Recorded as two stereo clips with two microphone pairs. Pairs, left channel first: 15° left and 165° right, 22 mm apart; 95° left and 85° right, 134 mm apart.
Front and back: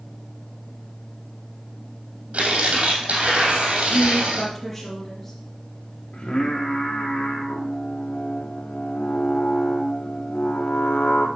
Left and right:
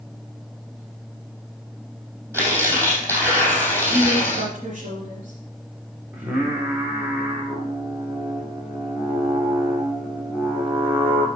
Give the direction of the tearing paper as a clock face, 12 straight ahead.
5 o'clock.